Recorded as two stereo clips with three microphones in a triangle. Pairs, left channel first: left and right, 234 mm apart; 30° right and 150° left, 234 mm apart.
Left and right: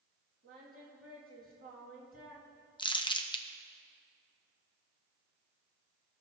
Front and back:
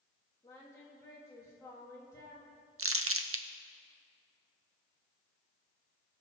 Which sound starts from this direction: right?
Singing, at 0.4 s.